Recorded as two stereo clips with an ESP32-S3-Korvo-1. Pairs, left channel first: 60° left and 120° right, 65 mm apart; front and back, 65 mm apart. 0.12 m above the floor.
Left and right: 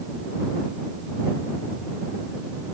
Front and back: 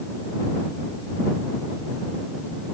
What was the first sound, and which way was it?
Only background noise.